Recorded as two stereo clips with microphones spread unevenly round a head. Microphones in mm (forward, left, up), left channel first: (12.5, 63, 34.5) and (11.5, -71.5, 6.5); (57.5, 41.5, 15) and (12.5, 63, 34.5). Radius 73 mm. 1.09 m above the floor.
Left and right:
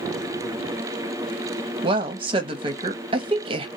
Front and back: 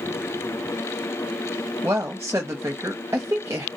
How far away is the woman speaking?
About 0.7 m.